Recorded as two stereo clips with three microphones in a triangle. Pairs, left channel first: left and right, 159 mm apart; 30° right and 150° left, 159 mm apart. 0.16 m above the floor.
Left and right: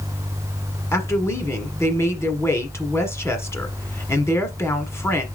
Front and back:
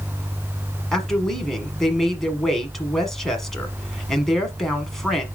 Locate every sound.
0.9 s a woman speaking: 55° left, 1.2 m